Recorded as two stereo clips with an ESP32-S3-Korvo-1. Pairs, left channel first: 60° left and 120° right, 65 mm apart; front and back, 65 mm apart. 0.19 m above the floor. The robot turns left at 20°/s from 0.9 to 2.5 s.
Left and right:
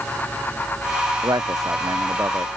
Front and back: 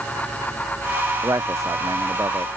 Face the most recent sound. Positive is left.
turn(degrees=-160)